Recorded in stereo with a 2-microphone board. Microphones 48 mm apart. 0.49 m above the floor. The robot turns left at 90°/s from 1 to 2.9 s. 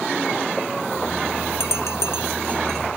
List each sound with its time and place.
1.6 s a bell: 65° left (ahead or behind); by 2.8 s 5° left (ahead or behind)